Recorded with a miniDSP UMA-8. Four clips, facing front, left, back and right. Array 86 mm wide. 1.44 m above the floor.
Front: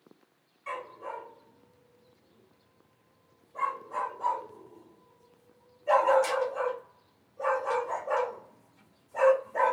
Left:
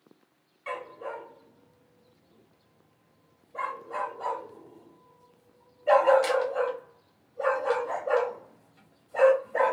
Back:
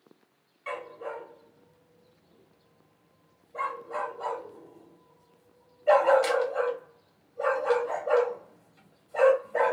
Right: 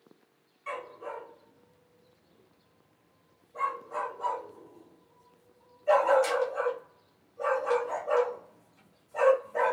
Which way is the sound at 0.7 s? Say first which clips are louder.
Left 2 dB, back 2 dB; 135° left.